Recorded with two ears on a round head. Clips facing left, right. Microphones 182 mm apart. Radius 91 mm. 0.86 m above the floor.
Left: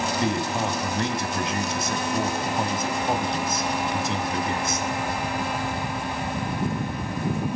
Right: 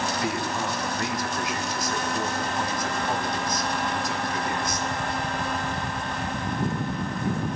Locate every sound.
0.2 s a man speaking: 25° left (ahead or behind), 4.5 m